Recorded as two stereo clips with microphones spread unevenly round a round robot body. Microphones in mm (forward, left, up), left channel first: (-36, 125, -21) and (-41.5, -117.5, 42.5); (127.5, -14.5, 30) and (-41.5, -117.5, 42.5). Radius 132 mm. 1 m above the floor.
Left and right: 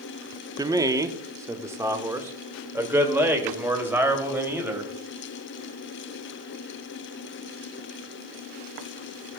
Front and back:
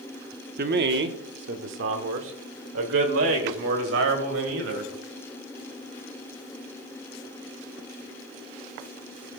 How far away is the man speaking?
About 0.9 m.